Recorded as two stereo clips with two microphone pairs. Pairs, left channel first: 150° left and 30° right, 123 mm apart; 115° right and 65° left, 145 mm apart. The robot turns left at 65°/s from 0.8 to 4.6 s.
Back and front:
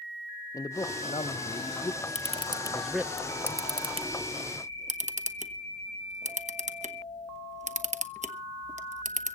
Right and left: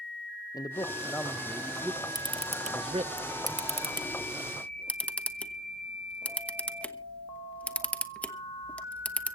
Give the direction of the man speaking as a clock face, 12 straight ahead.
5 o'clock.